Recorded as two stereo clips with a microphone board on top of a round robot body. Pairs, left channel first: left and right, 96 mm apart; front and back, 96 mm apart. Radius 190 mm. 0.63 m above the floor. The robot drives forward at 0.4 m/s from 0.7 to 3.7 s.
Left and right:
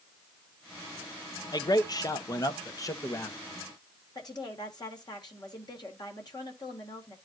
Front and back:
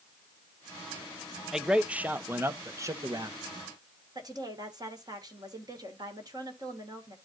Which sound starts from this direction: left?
A man speaking, at 1.5 s.